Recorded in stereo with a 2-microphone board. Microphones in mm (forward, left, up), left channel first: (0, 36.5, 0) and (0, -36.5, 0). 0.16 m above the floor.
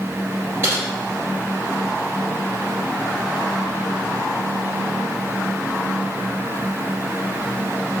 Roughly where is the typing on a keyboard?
Right.